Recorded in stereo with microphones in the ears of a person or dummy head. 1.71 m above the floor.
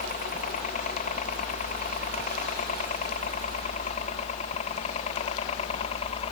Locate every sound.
0.0 s a helicopter: 45° left (ahead or behind); by 6.3 s 35° left (ahead or behind)